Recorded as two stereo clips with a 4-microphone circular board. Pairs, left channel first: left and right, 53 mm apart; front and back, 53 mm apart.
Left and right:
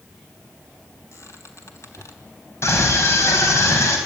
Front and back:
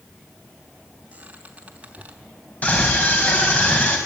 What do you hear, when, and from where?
1.1 s a squeak: 115° left, 3.5 m
2.6 s a scream: 60° left, 4.5 m